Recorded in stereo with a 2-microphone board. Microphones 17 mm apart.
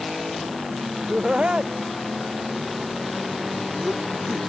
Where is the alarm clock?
I don't hear an alarm clock.